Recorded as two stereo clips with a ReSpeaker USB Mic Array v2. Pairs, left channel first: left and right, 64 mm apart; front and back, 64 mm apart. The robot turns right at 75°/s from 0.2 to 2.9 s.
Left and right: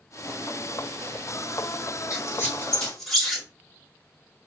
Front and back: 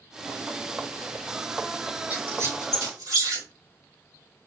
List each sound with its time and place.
2.1 s a squeak: 115° left, 3.5 m; by 3.5 s 175° left, 3.5 m